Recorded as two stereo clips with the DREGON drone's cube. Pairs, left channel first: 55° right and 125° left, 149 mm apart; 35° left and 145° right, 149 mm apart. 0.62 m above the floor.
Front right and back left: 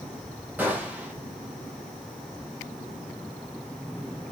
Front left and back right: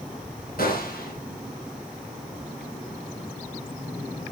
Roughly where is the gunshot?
Ahead left.